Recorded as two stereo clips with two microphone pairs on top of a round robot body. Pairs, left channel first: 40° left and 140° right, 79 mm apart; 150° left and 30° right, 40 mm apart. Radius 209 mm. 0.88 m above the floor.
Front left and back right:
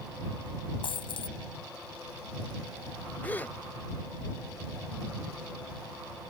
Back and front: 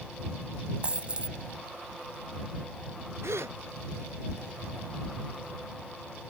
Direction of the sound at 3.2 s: 25° right.